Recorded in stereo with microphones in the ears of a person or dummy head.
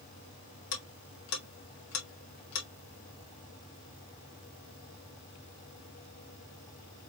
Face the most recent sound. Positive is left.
turn(degrees=60)  # may be behind; listen again after turning